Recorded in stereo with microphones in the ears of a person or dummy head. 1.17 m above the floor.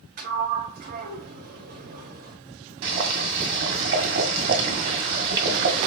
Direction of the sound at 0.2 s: 50° right (ahead or behind).